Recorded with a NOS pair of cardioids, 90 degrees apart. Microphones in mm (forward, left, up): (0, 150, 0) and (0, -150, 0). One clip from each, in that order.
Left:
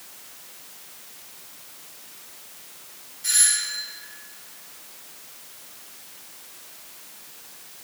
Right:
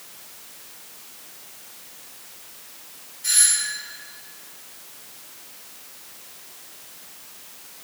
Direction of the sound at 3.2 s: Straight ahead.